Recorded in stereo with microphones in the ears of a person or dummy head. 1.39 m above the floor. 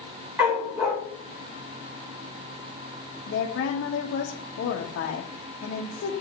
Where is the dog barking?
10° right (ahead or behind), 1.1 m.